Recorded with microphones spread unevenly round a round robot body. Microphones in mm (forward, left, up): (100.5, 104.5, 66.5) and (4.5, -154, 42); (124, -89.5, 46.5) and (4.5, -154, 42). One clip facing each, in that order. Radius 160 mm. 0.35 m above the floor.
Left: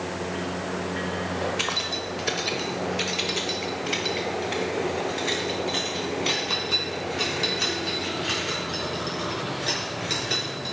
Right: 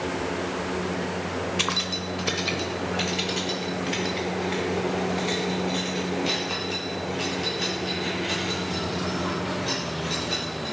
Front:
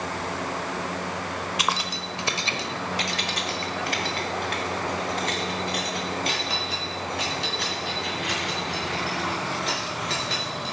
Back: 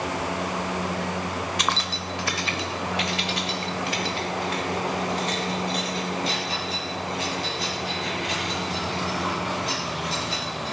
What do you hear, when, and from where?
1.6 s keys jangling: 60° right, 1.2 m; by 10.7 s 20° left, 5 m